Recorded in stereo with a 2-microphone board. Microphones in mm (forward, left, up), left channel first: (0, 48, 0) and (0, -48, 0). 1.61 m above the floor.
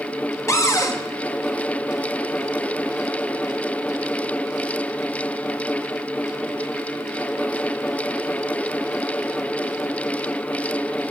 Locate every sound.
0.5 s a cupboard door: 30° left (ahead or behind), 1.0 m